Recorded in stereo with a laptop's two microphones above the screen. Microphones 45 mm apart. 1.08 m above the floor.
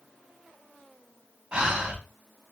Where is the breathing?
15° right (ahead or behind), 0.6 m.